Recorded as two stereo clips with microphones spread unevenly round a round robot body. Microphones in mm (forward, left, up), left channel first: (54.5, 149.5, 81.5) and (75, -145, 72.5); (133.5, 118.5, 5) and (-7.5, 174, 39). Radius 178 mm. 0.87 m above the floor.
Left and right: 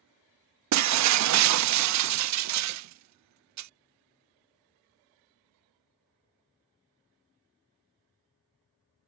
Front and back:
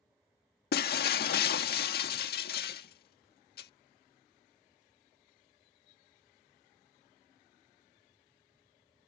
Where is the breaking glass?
50° right.